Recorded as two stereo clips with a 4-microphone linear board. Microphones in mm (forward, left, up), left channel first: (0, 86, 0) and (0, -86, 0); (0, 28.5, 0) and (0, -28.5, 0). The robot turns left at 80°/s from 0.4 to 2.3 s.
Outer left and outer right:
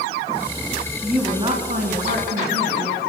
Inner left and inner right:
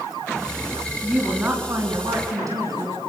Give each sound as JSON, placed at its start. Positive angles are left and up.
{"t": 1.0, "sound": "a woman speaking", "azimuth_deg": 0, "distance_m": 4.0}